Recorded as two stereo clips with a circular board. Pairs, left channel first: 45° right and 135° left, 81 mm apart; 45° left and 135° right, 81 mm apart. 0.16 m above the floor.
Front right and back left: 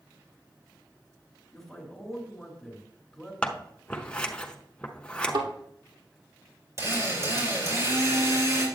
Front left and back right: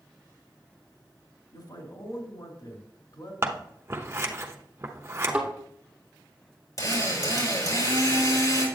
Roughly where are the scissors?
Right.